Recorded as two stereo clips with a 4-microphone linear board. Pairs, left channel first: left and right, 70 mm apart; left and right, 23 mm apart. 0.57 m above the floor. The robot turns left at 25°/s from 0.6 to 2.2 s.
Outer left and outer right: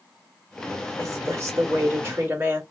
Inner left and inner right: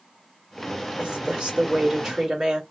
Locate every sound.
1.0 s a woman speaking: 110° right, 1.7 m; by 2.6 s 140° right, 1.7 m